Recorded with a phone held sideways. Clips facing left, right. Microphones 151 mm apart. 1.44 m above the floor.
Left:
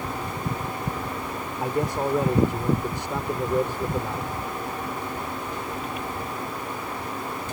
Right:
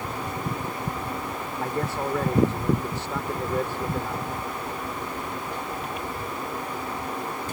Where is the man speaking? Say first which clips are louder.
Left 3 dB; 15° left (ahead or behind).